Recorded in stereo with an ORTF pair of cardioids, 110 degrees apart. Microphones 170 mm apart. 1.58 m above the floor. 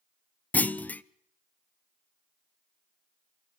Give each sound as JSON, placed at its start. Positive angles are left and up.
{"t": 0.5, "sound": "a clunk", "azimuth_deg": 10, "distance_m": 0.6}